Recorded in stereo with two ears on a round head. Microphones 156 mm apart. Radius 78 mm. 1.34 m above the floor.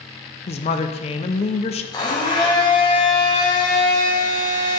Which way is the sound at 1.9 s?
25° left (ahead or behind).